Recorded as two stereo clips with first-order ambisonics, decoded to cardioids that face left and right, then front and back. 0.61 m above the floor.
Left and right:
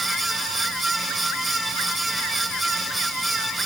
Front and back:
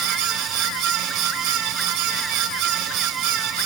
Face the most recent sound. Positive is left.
No sound to turn to.